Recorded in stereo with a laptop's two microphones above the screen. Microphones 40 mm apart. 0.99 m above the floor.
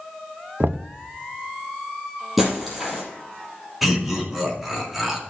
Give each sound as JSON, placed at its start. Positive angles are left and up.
{"t": 0.6, "sound": "knocking", "side_deg": -60, "distance_m": 0.5}
{"t": 2.4, "sound": "breaking glass", "side_deg": -5, "distance_m": 4.0}
{"t": 3.8, "sound": "laughter", "side_deg": -5, "distance_m": 2.5}